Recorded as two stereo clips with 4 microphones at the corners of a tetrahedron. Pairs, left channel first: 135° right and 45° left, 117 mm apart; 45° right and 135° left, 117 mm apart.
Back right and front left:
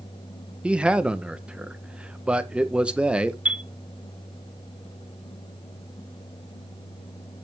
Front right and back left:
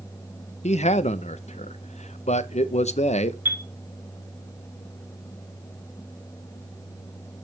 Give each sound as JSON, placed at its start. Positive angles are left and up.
{"t": 0.6, "sound": "a man speaking", "azimuth_deg": -35, "distance_m": 0.7}
{"t": 3.5, "sound": "a chime", "azimuth_deg": 105, "distance_m": 0.7}